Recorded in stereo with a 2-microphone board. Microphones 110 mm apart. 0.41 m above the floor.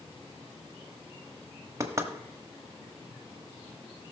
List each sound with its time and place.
1.8 s knocking: 30° right (ahead or behind), 1.2 m